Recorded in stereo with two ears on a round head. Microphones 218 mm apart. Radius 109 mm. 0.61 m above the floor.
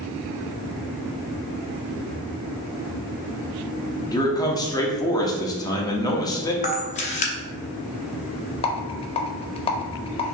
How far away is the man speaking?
About 0.7 m.